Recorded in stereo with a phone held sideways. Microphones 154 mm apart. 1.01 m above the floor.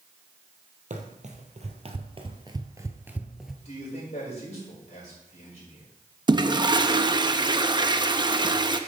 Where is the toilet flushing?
30° right (ahead or behind), 0.6 m.